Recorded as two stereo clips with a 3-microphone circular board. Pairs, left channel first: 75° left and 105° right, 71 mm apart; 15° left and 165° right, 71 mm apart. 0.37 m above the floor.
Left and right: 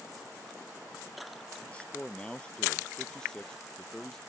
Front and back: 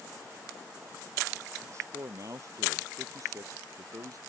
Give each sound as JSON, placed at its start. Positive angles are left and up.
{"t": 1.7, "sound": "a man speaking", "azimuth_deg": 145}